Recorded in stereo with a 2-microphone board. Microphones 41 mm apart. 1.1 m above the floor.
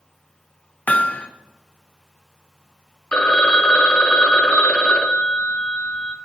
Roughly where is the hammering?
Left.